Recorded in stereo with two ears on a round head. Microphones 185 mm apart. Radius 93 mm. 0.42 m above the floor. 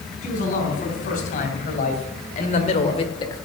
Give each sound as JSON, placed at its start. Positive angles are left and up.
{"t": 0.2, "sound": "a man speaking", "side_deg": 40, "distance_m": 5.0}